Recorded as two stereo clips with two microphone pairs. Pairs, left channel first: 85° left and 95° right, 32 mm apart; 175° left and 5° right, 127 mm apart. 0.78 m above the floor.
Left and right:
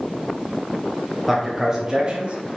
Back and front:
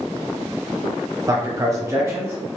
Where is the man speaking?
10° right, 0.9 m; by 2.4 s 65° right, 1.2 m.